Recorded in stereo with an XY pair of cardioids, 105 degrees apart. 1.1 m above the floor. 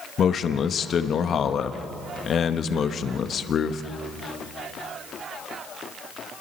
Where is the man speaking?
50° left, 1.1 m.